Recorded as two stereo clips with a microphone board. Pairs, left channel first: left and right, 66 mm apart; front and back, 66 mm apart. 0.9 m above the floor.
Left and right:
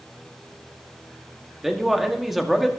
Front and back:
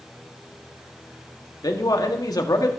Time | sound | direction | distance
1.6 | a man speaking | straight ahead | 1.6 m